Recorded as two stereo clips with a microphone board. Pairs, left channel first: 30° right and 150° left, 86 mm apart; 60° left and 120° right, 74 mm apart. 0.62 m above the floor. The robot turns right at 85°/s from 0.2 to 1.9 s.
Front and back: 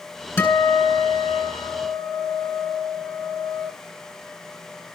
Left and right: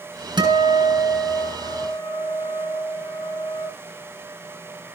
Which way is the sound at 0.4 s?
95° right.